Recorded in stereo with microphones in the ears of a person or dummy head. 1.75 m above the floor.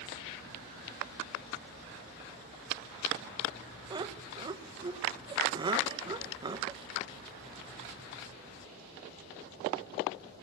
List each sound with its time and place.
3.9 s laughter: 20° right (ahead or behind), 1.8 m